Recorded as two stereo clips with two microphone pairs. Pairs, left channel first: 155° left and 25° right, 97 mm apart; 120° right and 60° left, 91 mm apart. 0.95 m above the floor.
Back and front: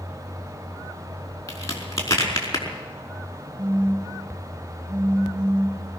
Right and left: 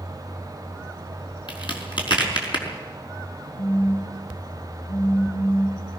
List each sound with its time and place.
1.5 s a crack: 150° right, 5 m
3.6 s a phone buzzing: 160° right, 3 m